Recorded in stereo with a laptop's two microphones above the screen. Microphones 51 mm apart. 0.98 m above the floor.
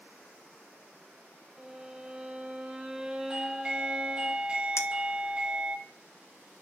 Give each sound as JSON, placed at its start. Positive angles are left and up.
{"t": 1.6, "sound": "a violin", "side_deg": -15, "distance_m": 0.7}
{"t": 3.3, "sound": "a doorbell", "side_deg": -20, "distance_m": 1.1}
{"t": 4.8, "sound": "a clink", "side_deg": 65, "distance_m": 0.5}